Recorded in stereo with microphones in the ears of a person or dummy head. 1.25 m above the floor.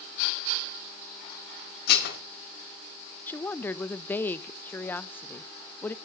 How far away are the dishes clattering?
About 1.9 m.